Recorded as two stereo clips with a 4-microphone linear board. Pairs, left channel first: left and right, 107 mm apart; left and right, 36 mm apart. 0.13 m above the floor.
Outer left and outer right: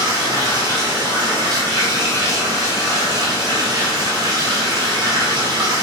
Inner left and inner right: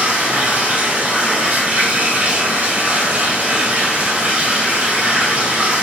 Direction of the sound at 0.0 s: 40° right (ahead or behind).